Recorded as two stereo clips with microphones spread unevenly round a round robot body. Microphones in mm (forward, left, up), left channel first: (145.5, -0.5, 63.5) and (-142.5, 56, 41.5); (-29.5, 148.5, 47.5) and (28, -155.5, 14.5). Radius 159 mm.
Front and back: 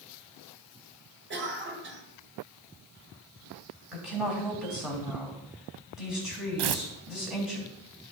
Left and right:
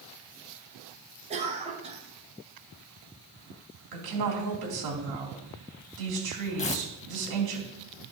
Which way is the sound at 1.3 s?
145° right.